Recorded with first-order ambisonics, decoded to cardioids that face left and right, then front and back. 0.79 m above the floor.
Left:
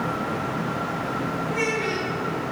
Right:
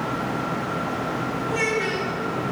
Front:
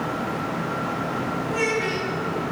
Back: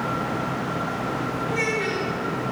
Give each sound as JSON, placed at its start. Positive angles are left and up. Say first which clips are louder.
{"t": 1.5, "sound": "a child speaking", "louder": "right 2 dB, front 1 dB", "azimuth_deg": -75, "distance_m": 9.5}